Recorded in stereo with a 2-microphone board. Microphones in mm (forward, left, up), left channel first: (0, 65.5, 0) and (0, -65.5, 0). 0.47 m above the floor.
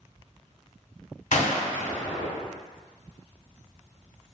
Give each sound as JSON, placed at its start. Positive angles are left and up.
{"t": 1.3, "sound": "a gunshot", "side_deg": 70, "distance_m": 0.7}